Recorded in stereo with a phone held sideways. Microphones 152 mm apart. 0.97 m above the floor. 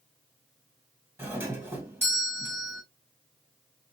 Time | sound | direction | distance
1.2 | a doorbell | 15° right (ahead or behind) | 1.7 m